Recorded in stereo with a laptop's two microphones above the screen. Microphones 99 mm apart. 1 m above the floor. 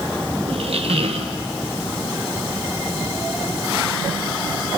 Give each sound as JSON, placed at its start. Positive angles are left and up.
{"t": 0.5, "sound": "a squeak", "side_deg": -75, "distance_m": 1.0}